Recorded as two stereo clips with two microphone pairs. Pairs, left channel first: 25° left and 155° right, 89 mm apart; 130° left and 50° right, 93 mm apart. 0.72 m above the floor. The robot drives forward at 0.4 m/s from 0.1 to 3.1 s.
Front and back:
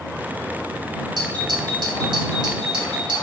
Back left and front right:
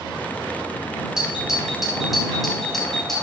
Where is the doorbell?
130° right, 2.5 m; by 3.2 s 145° right, 3 m.